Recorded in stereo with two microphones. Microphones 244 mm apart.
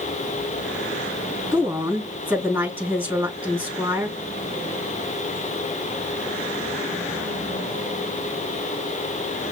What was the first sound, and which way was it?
A woman speaking, 10° right (ahead or behind).